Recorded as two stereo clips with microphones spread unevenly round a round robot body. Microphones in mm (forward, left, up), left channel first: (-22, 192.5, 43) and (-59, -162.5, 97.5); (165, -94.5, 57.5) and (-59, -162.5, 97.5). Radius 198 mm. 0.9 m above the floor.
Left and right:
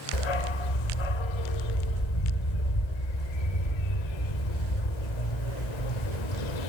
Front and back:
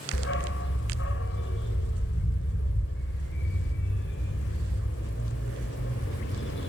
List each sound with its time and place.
0.1 s a dog barking: 75° left, 1.6 m